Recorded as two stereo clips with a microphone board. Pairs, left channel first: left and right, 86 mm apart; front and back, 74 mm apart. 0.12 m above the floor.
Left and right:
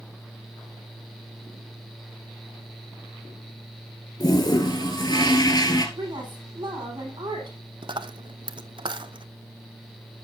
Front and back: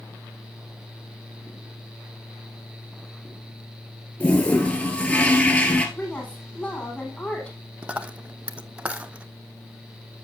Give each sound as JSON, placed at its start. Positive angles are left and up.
{"t": 4.2, "sound": "a toilet flushing", "azimuth_deg": 70, "distance_m": 1.3}
{"t": 6.0, "sound": "a woman speaking", "azimuth_deg": -65, "distance_m": 4.5}
{"t": 7.8, "sound": "a dropped coin", "azimuth_deg": -105, "distance_m": 0.5}